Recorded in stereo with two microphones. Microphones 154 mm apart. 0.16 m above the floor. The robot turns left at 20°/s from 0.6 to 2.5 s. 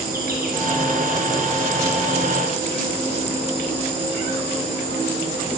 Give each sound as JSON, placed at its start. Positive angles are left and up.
{"t": 0.0, "sound": "an insect", "azimuth_deg": -105, "distance_m": 4.5}